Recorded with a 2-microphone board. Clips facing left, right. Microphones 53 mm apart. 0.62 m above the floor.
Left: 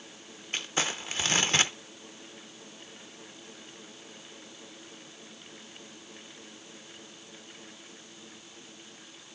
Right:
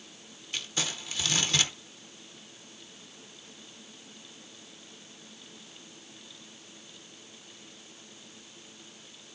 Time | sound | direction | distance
0.5 | crumpling | 40° left (ahead or behind) | 0.6 m